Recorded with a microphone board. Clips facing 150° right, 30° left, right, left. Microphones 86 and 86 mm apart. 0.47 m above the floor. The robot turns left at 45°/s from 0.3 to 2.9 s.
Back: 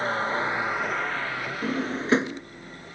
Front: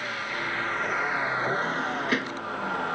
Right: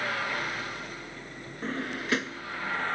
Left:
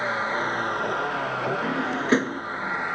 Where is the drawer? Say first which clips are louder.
Even, left 8 dB; 170° left; by 2.4 s 135° left.